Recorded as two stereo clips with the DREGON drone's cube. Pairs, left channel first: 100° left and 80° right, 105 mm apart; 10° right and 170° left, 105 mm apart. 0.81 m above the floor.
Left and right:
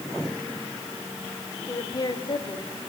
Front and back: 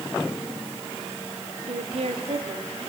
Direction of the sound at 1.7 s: 160° left.